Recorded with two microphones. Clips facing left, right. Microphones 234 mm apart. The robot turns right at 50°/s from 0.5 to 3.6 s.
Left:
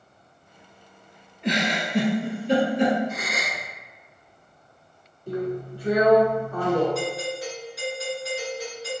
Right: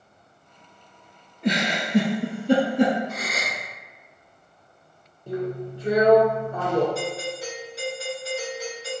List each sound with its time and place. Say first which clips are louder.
1.4 s a giggle: right 1 dB; 35° right (ahead or behind), 1.5 m; by 3.0 s 45° right (ahead or behind), 1.5 m
3.1 s a gasp: even; 20° left (ahead or behind), 0.8 m; by 3.6 s 15° left (ahead or behind), 0.8 m
5.3 s a drill: even; 25° right (ahead or behind), 1.0 m
7.0 s a doorbell: left 1 dB; 30° right (ahead or behind), 1.9 m